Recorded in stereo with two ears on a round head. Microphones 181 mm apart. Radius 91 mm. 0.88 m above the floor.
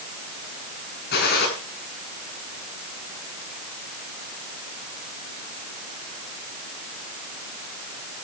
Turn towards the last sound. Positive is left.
turn(degrees=55)  # may be behind; listen again after turning